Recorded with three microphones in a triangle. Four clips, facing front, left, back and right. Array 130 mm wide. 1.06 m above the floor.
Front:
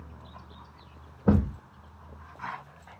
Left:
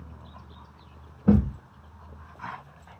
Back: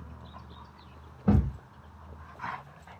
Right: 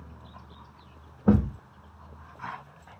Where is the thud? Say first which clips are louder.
Left 1 dB, front 2 dB; 45° right, 0.9 m.